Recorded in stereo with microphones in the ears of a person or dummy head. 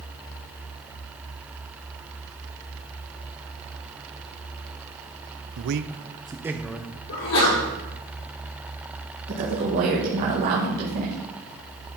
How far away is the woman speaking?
About 1.7 m.